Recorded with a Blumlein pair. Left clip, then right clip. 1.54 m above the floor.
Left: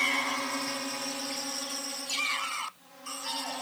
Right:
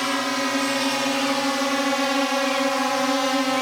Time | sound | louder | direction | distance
0.0 | a drone | right 5 dB | 65° right | ?